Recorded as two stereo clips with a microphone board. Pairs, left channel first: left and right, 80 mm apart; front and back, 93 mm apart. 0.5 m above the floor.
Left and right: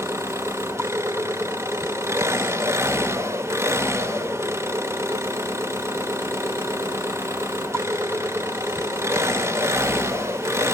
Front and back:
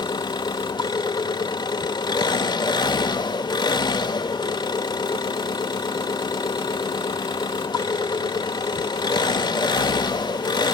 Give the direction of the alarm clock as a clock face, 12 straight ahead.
No alarm clock in this recording.